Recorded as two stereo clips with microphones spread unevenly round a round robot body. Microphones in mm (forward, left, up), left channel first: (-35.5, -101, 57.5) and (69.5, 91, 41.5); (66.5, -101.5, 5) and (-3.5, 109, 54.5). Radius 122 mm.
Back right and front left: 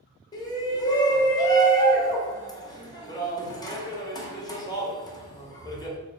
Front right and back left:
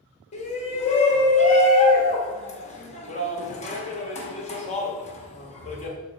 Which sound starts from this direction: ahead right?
A shout, at 0.3 s.